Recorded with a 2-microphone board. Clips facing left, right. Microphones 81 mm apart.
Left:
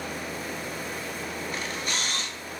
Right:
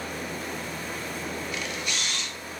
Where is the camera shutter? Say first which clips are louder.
Left 1 dB; 40° left (ahead or behind), 0.8 m.